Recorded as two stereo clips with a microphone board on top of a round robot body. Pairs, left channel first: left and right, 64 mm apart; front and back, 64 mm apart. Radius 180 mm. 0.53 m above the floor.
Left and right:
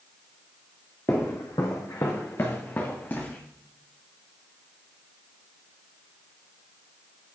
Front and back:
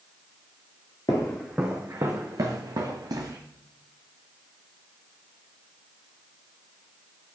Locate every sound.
1.1 s footsteps: 35° left, 0.5 m; by 3.4 s 155° left, 1.2 m